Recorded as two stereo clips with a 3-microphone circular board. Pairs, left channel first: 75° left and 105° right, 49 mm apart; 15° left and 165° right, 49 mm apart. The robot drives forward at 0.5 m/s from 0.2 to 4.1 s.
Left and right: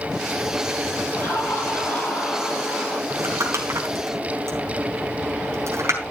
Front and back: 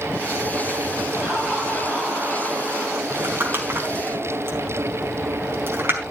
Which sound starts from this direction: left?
Laughter, at 1.1 s.